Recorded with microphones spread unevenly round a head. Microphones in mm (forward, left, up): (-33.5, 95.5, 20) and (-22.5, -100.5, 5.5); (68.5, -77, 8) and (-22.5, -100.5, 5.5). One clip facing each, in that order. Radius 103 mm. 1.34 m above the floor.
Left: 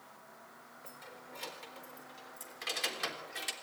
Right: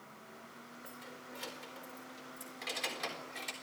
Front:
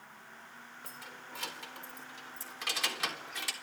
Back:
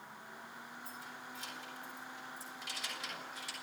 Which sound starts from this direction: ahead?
Keys jangling, at 0.8 s.